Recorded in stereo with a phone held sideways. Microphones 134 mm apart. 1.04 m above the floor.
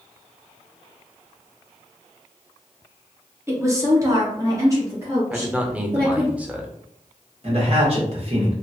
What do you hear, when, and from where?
3.5 s a woman speaking: 20° right (ahead or behind), 0.7 m
5.3 s a man speaking: 10° right (ahead or behind), 0.6 m
7.4 s a man speaking: 50° right (ahead or behind), 1.3 m